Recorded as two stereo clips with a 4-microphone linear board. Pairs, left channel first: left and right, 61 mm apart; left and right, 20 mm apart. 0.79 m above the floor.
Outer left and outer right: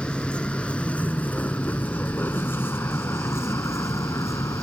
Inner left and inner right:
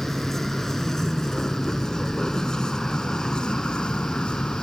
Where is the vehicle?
15° left (ahead or behind); by 4.6 s 60° left (ahead or behind).